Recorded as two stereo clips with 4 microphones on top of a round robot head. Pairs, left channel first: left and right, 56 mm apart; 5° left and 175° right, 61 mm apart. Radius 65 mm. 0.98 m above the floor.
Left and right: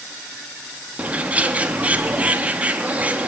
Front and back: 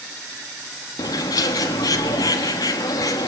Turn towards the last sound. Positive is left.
turn(degrees=-25)